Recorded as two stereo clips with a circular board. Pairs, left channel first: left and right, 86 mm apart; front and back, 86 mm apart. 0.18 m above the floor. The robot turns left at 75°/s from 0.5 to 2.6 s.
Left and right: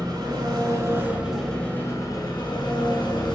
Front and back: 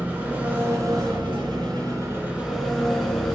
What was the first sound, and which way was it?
An engine running, 115° right.